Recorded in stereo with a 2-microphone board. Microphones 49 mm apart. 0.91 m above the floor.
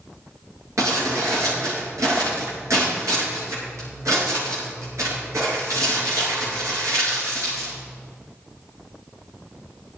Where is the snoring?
I don't hear snoring.